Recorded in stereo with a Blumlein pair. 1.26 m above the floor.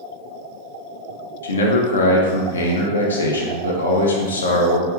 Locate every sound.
1.4 s a man speaking: 70° left, 0.6 m